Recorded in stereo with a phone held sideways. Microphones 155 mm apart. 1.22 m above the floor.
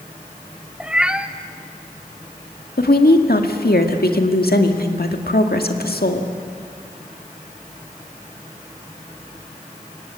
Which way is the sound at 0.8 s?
5° right (ahead or behind).